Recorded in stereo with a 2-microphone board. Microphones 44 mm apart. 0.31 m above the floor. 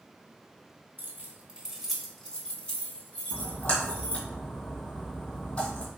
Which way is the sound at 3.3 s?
35° left (ahead or behind).